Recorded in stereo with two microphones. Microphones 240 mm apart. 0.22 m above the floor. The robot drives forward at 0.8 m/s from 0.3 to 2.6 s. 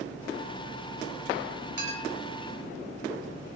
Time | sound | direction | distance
1.8 | a clink | 40° right (ahead or behind) | 1.4 m